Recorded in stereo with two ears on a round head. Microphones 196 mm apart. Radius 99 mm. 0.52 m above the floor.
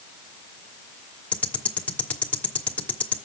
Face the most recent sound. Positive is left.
turn(degrees=5)  # may be behind; listen again after turning